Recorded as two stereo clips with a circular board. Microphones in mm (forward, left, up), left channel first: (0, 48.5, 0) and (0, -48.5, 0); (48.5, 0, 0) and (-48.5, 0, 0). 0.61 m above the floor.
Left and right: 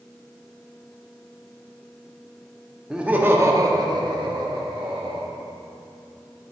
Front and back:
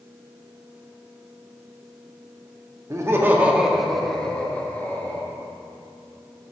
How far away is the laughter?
About 0.9 m.